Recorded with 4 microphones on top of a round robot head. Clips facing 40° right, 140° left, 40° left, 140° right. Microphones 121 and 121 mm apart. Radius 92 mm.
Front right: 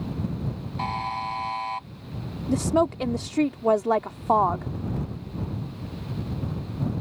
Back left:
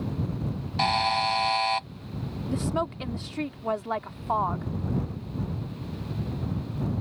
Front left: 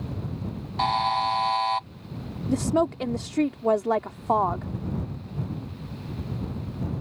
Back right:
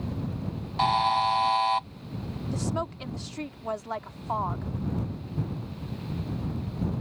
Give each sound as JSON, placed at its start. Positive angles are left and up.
{"t": 0.8, "sound": "a buzzer", "azimuth_deg": 130}
{"t": 2.5, "sound": "a woman speaking", "azimuth_deg": 5}